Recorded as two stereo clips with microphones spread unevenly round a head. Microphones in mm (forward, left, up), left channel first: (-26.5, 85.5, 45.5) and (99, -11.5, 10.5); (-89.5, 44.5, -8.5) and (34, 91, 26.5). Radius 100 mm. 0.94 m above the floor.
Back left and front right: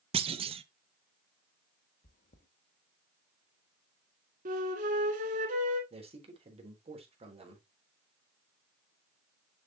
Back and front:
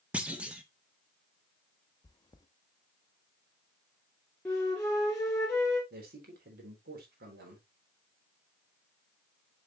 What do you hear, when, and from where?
0.1 s a clunk: 70° right, 0.6 m
2.0 s chewing: 135° left, 1.0 m
4.5 s a flute: 75° right, 2.0 m
5.9 s a man speaking: 10° left, 3.5 m